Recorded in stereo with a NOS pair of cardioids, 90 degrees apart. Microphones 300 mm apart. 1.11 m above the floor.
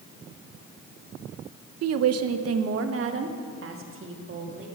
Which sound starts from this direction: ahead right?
A woman speaking, at 1.8 s.